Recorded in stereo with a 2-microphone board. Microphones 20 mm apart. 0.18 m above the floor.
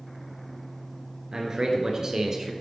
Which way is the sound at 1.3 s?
35° right (ahead or behind).